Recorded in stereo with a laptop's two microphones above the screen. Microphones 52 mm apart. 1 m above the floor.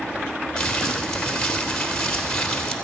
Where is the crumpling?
15° left (ahead or behind), 2.5 m.